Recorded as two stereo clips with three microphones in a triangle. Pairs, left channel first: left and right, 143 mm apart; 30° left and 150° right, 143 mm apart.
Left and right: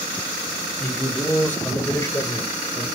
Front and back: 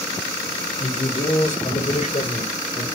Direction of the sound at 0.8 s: 5° left.